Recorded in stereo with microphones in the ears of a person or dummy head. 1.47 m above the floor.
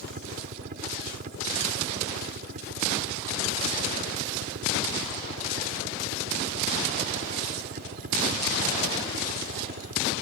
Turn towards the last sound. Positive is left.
turn(degrees=-45)  # may be behind; listen again after turning